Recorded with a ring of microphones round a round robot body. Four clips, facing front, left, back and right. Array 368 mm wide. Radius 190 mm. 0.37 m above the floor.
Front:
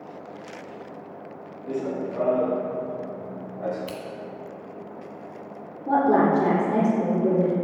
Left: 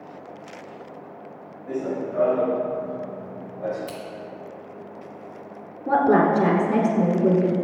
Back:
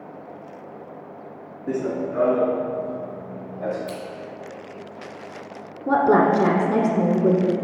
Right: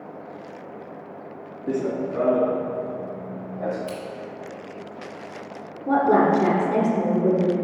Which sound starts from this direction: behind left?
A woman speaking, at 5.9 s.